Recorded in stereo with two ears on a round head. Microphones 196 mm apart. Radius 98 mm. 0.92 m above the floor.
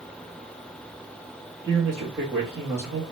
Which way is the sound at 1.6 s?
15° right (ahead or behind).